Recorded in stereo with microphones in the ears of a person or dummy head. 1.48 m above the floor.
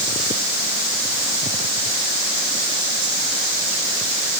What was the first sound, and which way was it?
Only background noise.